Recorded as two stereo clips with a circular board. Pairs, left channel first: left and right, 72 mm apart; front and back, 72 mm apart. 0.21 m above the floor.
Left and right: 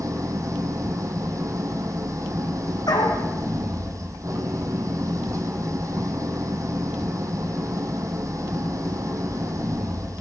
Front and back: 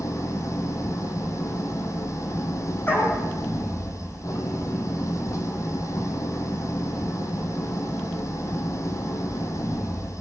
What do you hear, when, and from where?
0.0 s an engine running: 45° right, 2.5 m
2.9 s a dog barking: 65° left, 4 m